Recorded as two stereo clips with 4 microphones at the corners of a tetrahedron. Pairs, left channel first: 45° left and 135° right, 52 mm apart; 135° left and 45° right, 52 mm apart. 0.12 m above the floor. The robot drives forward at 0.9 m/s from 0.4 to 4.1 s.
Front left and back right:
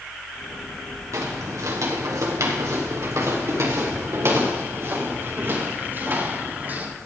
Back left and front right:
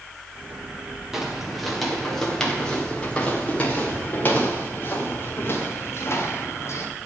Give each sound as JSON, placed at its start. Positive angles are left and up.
{"t": 1.1, "sound": "footsteps", "azimuth_deg": -130, "distance_m": 3.5}